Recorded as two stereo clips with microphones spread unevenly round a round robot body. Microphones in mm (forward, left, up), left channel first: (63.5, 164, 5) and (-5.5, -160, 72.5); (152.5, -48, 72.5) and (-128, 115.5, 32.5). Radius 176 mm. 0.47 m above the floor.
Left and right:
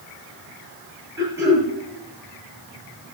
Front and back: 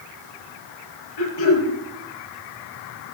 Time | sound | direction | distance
1.2 | throat clearing | 20° right | 8 m